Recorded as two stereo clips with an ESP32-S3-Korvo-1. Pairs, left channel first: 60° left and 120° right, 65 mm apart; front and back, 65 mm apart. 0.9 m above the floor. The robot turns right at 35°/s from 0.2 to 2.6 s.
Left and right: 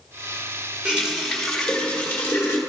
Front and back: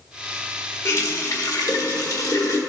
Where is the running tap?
45° right, 1.6 m; by 2.6 s 15° left, 1.6 m.